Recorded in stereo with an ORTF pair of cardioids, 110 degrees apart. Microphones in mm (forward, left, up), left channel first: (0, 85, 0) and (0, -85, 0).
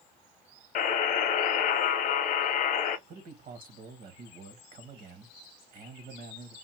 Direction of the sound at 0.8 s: 55° left.